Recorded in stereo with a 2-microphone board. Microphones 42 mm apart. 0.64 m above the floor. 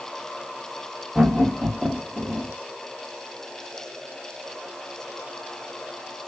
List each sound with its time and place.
1.1 s laughter: centre (ahead or behind), 1.4 m; by 2.5 s 35° right (ahead or behind), 1.2 m